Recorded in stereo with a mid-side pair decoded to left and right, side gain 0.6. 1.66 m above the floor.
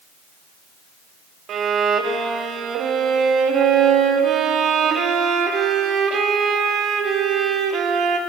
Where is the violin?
50° right, 0.6 m.